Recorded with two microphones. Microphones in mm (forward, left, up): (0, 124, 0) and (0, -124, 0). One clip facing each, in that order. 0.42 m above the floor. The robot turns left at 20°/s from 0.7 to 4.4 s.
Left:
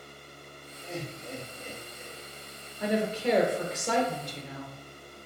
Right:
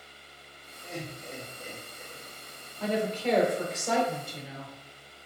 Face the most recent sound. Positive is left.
turn(degrees=-10)